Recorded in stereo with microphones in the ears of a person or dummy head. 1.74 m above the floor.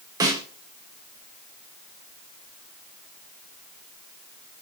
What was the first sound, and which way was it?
A snare drum, 15° right (ahead or behind).